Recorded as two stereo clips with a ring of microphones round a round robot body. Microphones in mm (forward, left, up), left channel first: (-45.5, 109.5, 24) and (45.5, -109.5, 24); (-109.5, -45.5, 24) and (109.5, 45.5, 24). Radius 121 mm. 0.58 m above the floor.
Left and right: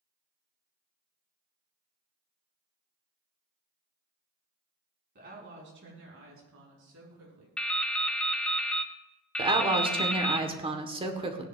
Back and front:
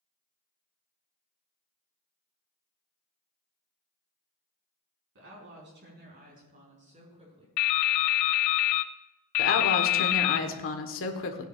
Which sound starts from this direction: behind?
Dripping, at 7.6 s.